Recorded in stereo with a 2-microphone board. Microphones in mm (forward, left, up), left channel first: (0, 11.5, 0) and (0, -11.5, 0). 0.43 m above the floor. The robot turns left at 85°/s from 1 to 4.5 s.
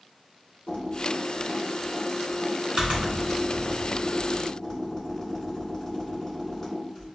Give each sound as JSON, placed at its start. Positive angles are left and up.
{"t": 0.7, "sound": "typing on a keyboard", "side_deg": 75, "distance_m": 2.0}